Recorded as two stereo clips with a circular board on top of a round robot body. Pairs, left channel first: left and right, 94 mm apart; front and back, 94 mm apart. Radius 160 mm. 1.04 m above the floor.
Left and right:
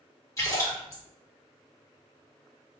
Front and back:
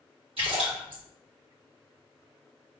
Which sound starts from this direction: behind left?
A splash, at 0.4 s.